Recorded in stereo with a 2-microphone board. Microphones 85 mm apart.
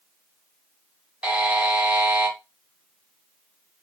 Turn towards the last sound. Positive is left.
turn(degrees=-15)  # may be behind; listen again after turning